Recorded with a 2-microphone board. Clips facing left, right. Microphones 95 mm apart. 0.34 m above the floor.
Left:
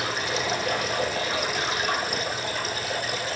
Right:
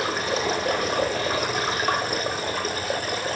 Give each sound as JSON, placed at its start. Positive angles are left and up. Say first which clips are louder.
{"t": 0.0, "sound": "running water", "louder": "right 3 dB", "side_deg": -40, "distance_m": 2.0}